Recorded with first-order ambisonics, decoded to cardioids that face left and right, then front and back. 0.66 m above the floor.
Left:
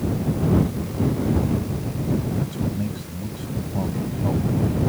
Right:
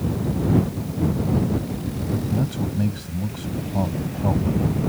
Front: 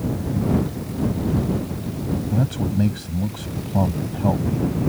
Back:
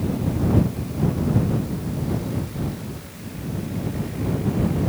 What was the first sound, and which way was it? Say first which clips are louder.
A man speaking: right 1 dB, front 5 dB; 20° right.